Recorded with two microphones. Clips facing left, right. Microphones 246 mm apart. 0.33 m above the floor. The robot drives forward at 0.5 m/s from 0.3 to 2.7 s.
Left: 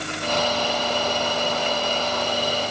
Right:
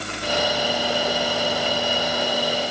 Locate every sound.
Only background noise.